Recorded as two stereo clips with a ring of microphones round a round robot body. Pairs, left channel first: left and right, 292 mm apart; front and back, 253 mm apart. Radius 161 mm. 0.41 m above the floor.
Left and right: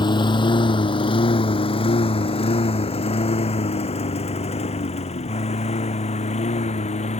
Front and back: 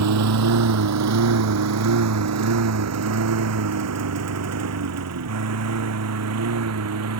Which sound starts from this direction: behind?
A lawn mower, at 0.0 s.